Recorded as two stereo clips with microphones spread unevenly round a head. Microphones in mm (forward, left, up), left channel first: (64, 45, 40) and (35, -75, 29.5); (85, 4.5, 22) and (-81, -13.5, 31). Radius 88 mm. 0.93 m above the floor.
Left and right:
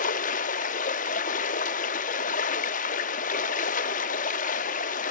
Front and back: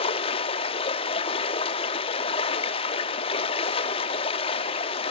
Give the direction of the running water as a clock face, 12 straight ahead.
10 o'clock.